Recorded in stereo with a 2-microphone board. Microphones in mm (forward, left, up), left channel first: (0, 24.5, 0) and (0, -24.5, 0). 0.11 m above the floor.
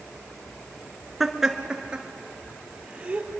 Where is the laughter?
5° right (ahead or behind), 1.3 m; by 3.3 s 30° right (ahead or behind), 2.5 m.